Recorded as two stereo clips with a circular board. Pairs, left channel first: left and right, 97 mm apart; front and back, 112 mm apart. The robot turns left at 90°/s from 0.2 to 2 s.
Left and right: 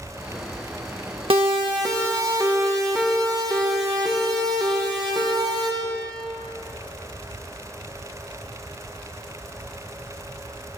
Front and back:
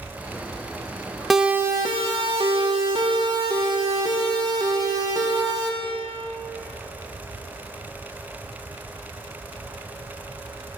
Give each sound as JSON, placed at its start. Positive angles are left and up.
{"t": 1.3, "sound": "a siren", "azimuth_deg": -90, "distance_m": 2.0}